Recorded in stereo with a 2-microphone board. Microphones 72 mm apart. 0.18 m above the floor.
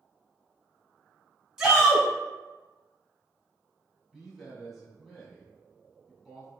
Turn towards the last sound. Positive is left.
turn(degrees=-5)  # may be behind; listen again after turning